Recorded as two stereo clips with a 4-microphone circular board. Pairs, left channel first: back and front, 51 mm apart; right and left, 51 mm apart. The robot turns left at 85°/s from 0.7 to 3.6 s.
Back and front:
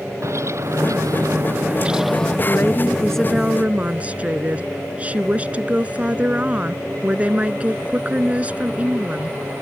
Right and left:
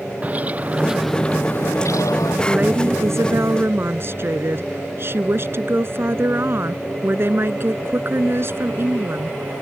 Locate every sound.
0.2 s a bird: 30° left; by 2.4 s 110° right
2.5 s a woman speaking: 155° left; by 9.4 s 60° left